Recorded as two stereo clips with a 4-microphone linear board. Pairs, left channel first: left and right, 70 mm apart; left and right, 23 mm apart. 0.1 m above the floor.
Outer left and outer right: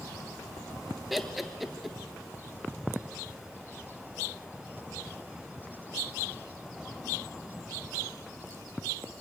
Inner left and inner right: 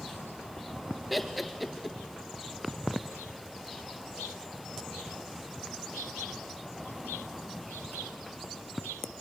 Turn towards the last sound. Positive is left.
turn(degrees=0)  # may be behind; listen again after turning